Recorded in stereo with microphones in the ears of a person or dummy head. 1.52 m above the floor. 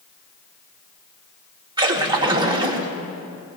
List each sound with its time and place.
1.8 s a splash: 20° right (ahead or behind), 1.2 m